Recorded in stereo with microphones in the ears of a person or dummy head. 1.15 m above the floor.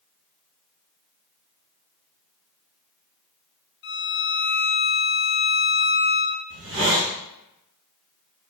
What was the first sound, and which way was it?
A violin, 50° left (ahead or behind).